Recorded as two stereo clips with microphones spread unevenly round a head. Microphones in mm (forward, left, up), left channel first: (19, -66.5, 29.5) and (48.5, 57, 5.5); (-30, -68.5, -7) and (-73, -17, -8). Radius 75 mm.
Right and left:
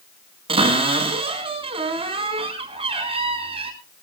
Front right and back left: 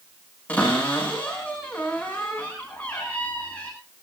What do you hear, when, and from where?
0.5 s a cupboard door: 30° left, 5 m